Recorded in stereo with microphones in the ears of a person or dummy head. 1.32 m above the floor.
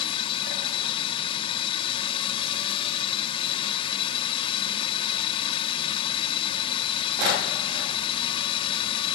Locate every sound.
0.0 s a drone: 30° left (ahead or behind)